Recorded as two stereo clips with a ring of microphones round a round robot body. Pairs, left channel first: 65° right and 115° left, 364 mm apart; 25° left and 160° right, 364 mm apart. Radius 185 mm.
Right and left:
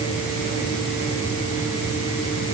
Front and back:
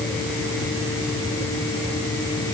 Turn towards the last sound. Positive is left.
No sound to turn to.